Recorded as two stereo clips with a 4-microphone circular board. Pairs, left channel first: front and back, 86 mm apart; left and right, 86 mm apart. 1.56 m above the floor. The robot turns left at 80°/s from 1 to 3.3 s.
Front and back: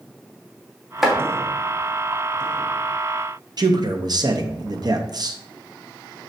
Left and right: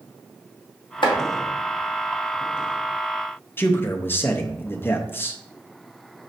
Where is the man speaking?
150° left, 0.6 m.